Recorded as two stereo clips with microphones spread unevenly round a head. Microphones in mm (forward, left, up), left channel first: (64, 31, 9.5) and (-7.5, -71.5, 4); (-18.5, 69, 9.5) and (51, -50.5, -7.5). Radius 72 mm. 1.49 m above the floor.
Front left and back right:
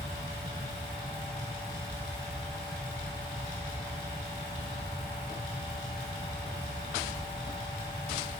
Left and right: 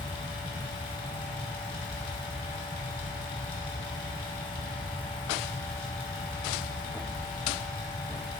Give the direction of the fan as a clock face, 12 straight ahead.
9 o'clock.